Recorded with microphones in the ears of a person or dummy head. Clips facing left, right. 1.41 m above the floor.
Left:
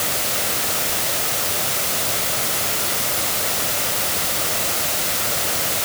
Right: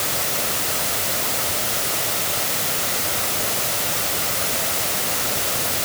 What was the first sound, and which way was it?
Only background noise.